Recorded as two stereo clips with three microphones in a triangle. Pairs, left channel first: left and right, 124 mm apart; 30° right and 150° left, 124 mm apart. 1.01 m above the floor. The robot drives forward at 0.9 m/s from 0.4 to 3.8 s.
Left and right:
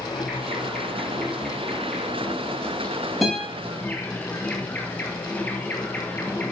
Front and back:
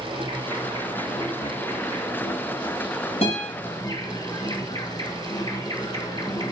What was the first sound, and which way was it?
An insect, 5° left.